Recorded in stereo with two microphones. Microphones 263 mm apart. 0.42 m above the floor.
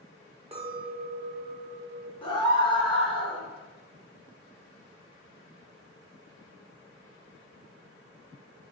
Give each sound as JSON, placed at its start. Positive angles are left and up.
{"t": 0.5, "sound": "a clink", "side_deg": -25, "distance_m": 0.7}
{"t": 2.2, "sound": "a scream", "side_deg": 20, "distance_m": 0.8}